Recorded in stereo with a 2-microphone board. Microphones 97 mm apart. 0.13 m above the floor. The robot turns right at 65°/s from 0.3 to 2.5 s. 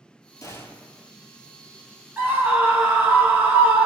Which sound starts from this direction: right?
A scream, at 2.2 s.